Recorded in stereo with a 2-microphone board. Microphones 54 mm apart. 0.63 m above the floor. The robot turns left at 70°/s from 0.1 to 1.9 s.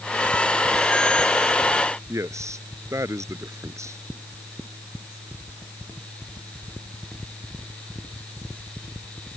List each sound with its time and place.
2.1 s a man speaking: 65° right (ahead or behind)